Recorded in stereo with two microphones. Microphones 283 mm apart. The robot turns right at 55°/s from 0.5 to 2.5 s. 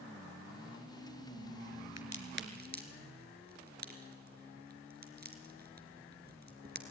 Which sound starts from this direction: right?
A crack, at 2.0 s.